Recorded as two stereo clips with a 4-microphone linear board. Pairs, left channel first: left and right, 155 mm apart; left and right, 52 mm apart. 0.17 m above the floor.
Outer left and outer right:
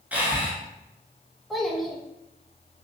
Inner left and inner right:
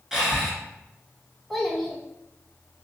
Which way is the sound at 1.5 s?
Centre (ahead or behind).